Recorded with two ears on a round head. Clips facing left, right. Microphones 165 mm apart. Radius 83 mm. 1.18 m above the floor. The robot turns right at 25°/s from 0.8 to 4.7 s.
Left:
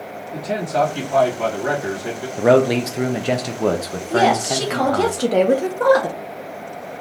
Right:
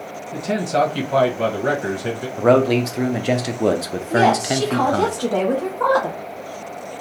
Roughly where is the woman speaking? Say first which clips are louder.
Even; centre.